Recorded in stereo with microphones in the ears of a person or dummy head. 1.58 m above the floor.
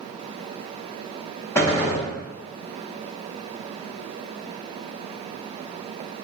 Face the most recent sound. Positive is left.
turn(degrees=10)  # may be behind; listen again after turning